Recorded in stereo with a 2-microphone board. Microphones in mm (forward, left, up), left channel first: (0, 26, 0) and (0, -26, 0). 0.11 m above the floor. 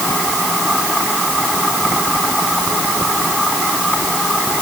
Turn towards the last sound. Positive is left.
No sound to turn to.